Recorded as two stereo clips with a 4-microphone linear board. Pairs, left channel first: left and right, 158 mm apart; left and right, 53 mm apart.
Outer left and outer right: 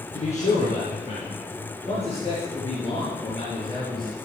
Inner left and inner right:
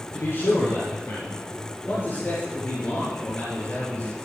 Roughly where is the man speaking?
Left.